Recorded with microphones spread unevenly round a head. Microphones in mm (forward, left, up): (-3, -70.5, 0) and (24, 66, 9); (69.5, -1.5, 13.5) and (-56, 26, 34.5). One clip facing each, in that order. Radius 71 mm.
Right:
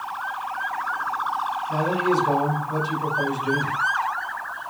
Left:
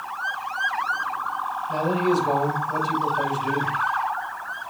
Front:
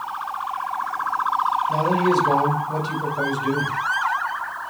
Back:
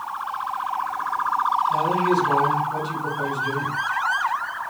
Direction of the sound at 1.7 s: 5° right.